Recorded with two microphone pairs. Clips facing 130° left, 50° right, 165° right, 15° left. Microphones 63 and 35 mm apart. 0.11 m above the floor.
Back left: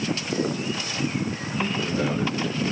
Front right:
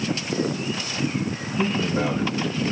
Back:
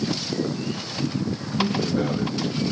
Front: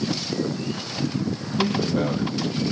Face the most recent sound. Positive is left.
turn(degrees=-10)